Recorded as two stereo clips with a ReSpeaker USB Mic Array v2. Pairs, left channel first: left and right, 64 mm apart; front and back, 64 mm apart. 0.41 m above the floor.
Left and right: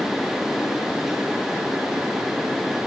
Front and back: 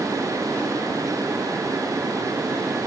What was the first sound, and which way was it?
Only background noise.